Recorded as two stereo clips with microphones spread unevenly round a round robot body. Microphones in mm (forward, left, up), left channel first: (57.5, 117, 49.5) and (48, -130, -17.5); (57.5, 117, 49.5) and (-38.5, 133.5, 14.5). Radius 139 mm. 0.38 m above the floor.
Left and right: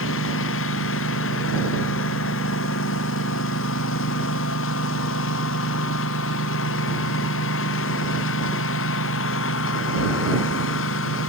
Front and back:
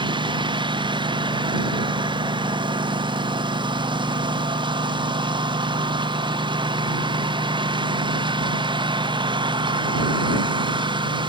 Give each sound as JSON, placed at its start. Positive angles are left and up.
{"t": 0.0, "sound": "a lawn mower", "azimuth_deg": 135}